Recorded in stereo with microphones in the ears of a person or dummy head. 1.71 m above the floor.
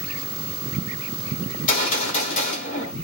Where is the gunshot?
40° left (ahead or behind), 1.7 m.